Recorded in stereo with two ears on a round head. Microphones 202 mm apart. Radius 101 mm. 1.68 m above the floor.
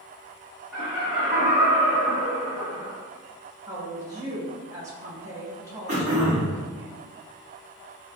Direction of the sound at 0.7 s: 5° right (ahead or behind).